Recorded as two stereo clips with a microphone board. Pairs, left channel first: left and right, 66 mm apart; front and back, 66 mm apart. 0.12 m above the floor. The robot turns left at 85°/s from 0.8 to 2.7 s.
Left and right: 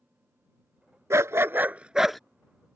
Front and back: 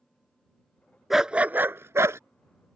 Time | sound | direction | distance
1.1 | a dog barking | 90° right | ?